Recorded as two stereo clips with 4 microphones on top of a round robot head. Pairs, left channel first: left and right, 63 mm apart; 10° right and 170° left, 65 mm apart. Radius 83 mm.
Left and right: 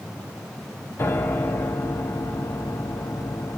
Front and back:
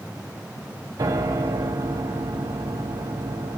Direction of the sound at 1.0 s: 140° left.